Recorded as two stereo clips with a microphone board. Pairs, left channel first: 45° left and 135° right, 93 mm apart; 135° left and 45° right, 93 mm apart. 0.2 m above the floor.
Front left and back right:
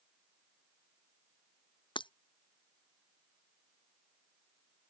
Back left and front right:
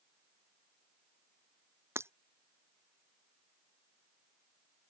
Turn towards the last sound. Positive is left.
turn(degrees=15)